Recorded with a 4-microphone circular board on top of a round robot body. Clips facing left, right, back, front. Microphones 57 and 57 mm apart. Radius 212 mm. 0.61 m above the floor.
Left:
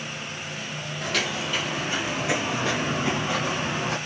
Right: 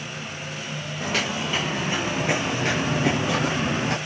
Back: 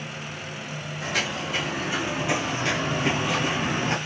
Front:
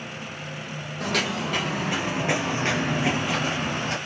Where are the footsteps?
25° right, 1.5 m; by 4.0 s 120° right, 0.9 m.